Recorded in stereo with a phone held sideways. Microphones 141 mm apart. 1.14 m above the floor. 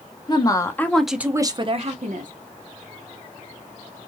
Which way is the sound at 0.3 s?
30° left (ahead or behind).